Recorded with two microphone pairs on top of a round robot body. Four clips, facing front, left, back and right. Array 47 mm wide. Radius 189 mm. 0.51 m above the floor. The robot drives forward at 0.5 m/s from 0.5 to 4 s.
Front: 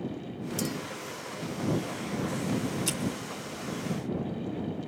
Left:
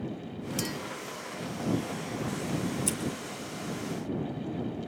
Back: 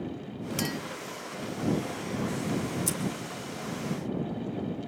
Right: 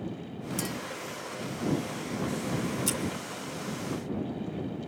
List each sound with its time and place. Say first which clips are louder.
0.6 s a clink: even, back 1 dB; 175° left, 0.8 m; by 0.8 s straight behind, 0.9 m
2.9 s scissors: right 2 dB, front 1 dB; 5° right, 1.2 m